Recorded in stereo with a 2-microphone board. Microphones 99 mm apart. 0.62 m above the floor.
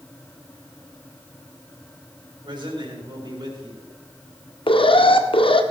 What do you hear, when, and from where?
2.5 s a man speaking: 45° right (ahead or behind), 4 m
4.7 s an alarm: 65° left (ahead or behind), 1.0 m